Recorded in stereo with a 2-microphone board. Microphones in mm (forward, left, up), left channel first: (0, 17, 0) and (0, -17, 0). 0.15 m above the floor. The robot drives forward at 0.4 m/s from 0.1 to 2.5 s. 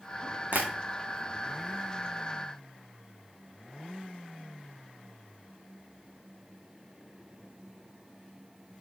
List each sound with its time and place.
0.5 s tapping: 50° right (ahead or behind), 2 m